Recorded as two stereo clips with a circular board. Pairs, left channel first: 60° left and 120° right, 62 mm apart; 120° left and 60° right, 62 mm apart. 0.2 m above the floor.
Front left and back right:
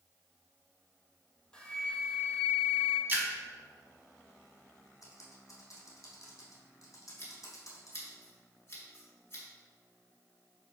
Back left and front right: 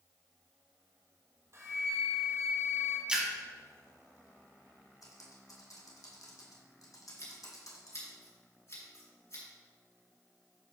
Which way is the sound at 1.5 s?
15° right.